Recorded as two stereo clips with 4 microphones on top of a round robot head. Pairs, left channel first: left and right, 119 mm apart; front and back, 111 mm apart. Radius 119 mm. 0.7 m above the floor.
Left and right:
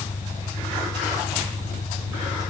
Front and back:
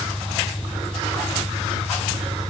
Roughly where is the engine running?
Left.